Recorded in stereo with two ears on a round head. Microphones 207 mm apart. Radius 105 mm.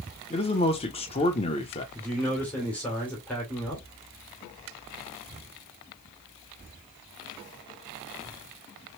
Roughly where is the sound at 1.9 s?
Centre.